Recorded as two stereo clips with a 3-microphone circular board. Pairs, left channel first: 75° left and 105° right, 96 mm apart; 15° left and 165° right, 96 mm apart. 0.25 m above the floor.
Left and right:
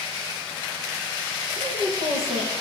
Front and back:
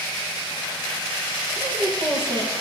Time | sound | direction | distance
1.6 | a woman speaking | 120° right | 7.5 m